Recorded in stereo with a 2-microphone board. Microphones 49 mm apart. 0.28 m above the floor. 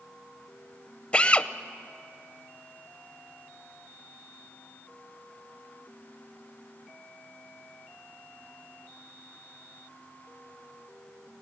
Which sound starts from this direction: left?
A drill, at 1.1 s.